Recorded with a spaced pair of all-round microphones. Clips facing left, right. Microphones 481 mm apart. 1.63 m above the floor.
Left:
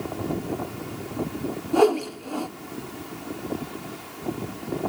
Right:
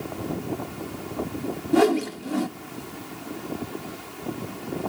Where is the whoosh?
40° right (ahead or behind), 0.7 m.